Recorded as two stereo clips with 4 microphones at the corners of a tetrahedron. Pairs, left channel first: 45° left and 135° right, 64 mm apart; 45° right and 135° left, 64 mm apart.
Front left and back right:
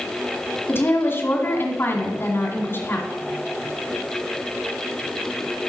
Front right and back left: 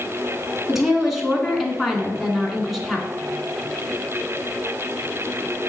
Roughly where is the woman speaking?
Ahead left.